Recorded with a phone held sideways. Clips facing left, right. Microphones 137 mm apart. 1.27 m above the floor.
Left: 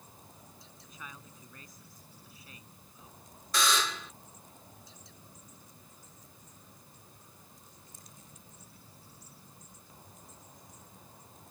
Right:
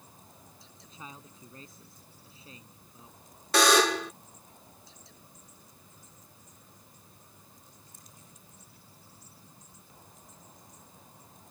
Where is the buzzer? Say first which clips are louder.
Right 9 dB; 70° right (ahead or behind).